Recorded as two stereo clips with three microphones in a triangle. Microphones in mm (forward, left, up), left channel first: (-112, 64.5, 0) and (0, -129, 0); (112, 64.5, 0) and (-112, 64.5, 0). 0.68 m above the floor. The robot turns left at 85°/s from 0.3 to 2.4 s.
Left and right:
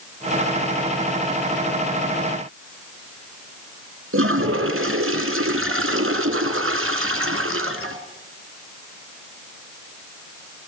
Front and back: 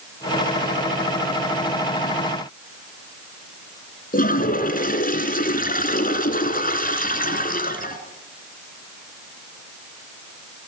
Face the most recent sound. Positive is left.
turn(degrees=-50)